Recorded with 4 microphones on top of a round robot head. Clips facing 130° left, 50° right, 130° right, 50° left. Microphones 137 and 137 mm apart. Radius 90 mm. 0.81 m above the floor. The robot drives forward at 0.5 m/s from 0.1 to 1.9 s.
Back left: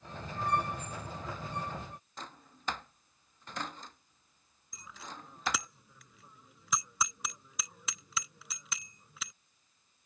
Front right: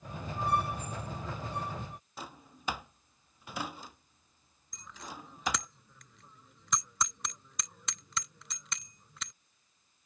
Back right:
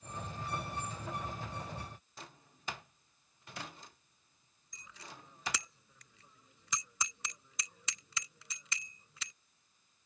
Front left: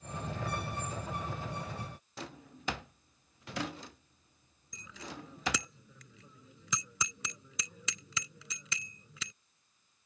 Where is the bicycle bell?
45° left.